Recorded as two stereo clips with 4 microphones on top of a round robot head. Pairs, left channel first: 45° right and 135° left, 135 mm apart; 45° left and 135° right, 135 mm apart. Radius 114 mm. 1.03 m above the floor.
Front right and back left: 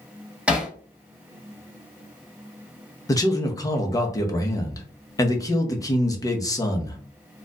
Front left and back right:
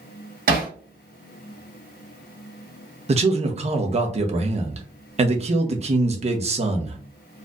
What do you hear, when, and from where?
0.5 s hammering: 145° right, 1.9 m
3.1 s a man speaking: 105° right, 1.0 m